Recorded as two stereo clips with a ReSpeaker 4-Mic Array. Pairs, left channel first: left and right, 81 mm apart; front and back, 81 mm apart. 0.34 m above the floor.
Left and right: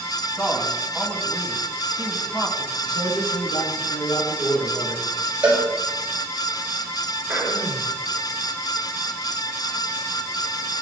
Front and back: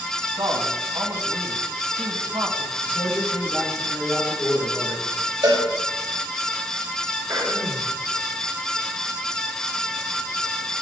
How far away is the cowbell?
About 5.5 m.